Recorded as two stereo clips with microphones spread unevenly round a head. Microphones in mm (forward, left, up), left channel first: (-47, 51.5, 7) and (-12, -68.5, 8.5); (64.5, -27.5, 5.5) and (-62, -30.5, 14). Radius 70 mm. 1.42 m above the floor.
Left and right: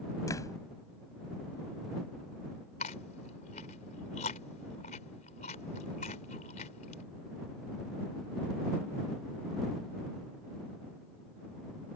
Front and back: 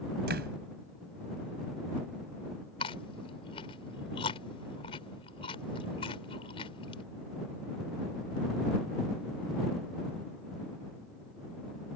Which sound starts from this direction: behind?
A door slam, at 0.3 s.